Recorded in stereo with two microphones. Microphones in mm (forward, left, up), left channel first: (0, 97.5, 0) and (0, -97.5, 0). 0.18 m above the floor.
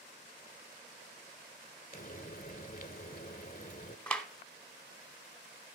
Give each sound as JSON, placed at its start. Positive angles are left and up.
{"t": 1.9, "sound": "frying", "side_deg": 45, "distance_m": 0.6}
{"t": 4.1, "sound": "a clap", "side_deg": 5, "distance_m": 0.9}